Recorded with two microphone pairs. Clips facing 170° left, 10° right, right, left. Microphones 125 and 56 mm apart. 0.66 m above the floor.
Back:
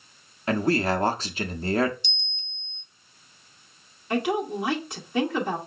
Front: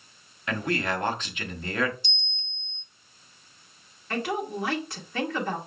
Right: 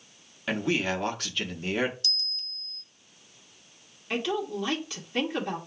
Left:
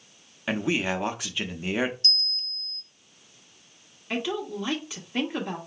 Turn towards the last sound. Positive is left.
turn(degrees=150)